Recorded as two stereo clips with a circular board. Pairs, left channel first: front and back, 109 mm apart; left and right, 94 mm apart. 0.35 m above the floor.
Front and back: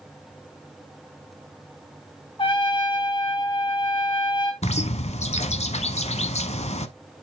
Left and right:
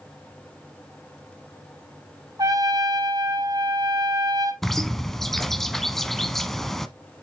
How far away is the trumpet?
About 2.0 m.